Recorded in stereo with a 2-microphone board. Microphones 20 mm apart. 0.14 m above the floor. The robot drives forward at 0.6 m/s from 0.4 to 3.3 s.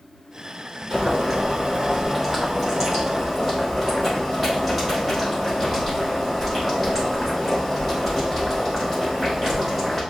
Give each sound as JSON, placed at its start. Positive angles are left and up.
{"t": 0.9, "sound": "boiling", "side_deg": -20, "distance_m": 1.6}